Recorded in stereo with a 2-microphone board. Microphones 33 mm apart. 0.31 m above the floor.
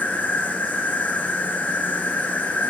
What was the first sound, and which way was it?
An insect, 80° left.